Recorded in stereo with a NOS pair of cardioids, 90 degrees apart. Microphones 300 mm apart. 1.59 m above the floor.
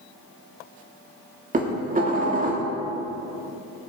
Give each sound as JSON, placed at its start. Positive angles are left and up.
{"t": 1.5, "sound": "dishes clattering", "azimuth_deg": -30, "distance_m": 2.5}